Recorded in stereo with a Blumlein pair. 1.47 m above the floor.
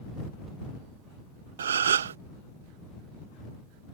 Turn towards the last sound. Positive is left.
turn(degrees=-65)